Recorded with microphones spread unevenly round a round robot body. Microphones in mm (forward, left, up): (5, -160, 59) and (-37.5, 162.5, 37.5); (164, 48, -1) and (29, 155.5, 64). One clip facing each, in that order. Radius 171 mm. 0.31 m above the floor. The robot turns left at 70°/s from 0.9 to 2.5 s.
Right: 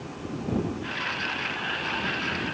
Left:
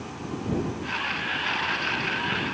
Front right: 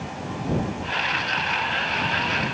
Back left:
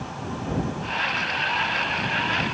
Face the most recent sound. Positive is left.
No sound to turn to.